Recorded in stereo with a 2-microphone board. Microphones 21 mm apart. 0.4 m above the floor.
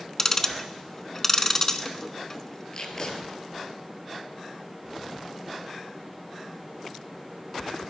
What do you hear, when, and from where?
0.2 s ticking: 25° left (ahead or behind), 0.8 m
2.7 s tape being pulled: 40° left (ahead or behind), 2.0 m